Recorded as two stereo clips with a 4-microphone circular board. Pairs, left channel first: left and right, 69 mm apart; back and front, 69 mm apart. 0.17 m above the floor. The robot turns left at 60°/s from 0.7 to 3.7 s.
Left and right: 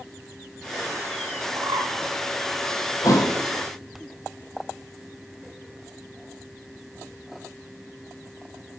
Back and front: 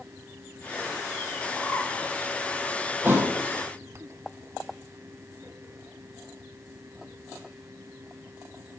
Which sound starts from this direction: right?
A bird, at 1.6 s.